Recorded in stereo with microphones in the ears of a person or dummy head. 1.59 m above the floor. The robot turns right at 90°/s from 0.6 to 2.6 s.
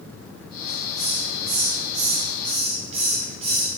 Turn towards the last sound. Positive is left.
turn(degrees=-30)